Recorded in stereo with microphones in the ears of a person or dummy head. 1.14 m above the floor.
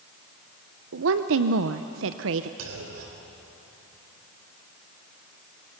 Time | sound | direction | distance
0.9 | a woman speaking | 65° right (ahead or behind) | 0.6 m
2.6 | a clunk | 75° right (ahead or behind) | 3 m